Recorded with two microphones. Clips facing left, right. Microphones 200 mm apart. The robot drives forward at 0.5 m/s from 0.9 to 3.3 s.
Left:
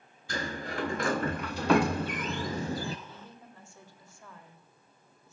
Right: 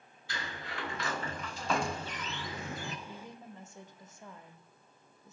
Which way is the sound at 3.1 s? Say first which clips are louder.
Right 3 dB; 20° right (ahead or behind).